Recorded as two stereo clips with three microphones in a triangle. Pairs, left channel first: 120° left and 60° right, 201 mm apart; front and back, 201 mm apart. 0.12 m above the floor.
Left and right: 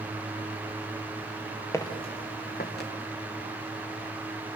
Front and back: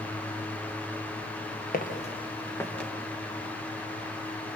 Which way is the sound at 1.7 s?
45° left.